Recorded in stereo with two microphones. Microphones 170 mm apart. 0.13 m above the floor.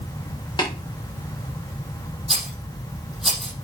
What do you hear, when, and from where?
0.6 s tapping: 25° left (ahead or behind), 4 m
2.3 s a rattle: centre (ahead or behind), 5 m